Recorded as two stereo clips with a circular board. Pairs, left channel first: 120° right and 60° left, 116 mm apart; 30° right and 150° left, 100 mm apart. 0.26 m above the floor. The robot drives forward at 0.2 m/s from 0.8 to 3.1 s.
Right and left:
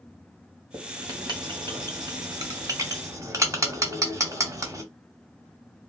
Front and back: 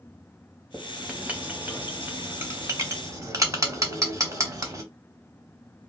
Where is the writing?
75° left, 1.0 m; by 4.8 s 110° left, 1.0 m.